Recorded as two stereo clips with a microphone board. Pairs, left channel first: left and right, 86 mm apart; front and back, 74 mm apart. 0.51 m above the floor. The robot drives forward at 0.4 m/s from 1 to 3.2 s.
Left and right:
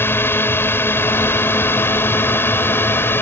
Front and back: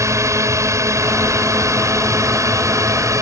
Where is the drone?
145° left; by 3.2 s 150° left.